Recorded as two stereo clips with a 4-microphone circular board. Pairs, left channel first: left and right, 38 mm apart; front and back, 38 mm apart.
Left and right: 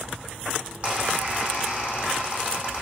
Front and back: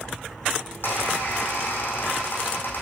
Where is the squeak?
35° right, 3.5 m.